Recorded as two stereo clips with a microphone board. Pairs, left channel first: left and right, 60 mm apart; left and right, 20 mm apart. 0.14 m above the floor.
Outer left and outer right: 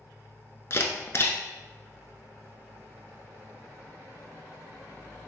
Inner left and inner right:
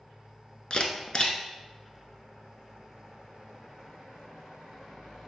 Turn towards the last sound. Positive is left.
turn(degrees=45)  # may be behind; listen again after turning